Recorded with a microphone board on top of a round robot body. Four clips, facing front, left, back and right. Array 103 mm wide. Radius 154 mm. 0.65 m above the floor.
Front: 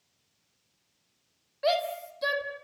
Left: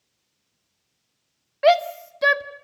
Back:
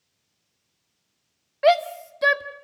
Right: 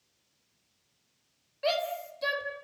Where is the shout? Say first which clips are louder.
Left 13 dB, back 9 dB; 130° left, 2 m.